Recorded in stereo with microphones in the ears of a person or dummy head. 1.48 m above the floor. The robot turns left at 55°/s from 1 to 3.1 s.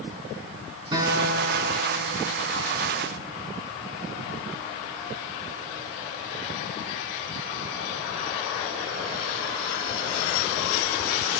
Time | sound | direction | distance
0.9 | a guitar | 155° right | 10 m